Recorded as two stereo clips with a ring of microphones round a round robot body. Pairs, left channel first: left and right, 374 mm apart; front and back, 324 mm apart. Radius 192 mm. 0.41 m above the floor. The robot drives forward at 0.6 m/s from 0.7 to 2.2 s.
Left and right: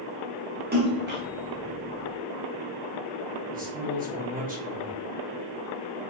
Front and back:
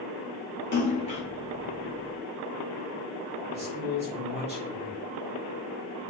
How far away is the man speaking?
About 1.3 m.